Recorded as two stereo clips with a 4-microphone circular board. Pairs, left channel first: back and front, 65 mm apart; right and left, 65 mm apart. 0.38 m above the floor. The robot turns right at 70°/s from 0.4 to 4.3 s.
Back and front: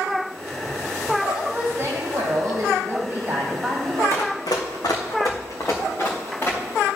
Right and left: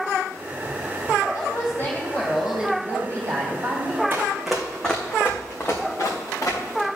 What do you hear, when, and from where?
1.3 s a woman speaking: 75° right, 2.5 m; by 4.0 s 115° left, 2.5 m
4.1 s running footsteps: 145° left, 1.7 m; by 6.9 s 125° right, 3.5 m